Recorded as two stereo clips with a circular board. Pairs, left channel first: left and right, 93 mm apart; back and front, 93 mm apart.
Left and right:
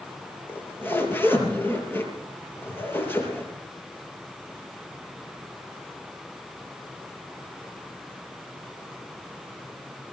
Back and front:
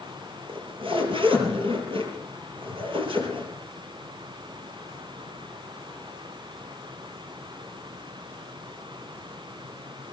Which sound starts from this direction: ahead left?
A zipper, at 0.5 s.